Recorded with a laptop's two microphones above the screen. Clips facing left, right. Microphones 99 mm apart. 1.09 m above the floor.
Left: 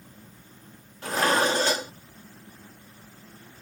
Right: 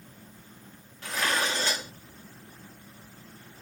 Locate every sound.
1.0 s dishes clattering: 40° left (ahead or behind)